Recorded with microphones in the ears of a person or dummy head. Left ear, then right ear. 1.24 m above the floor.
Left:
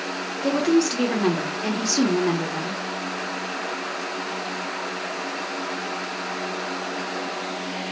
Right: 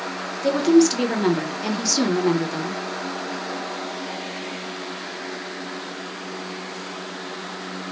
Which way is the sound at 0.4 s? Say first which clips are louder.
Right 4 dB; 15° right (ahead or behind).